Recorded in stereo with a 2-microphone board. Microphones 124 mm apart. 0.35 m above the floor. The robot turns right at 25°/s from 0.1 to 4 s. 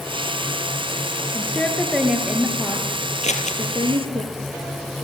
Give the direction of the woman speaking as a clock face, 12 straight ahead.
7 o'clock.